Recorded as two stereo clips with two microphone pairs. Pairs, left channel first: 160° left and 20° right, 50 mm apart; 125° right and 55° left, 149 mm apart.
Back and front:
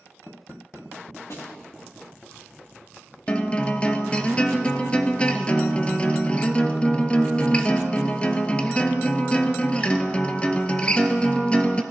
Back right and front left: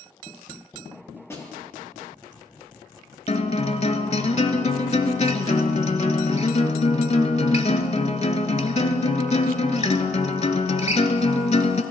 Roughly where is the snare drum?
Behind.